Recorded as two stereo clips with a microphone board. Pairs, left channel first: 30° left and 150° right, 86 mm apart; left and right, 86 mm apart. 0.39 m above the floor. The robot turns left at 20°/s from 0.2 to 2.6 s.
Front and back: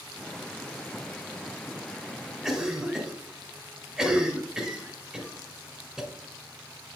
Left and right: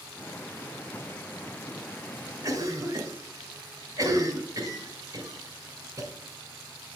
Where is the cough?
65° right, 1.9 m; by 6.1 s 70° right, 1.9 m.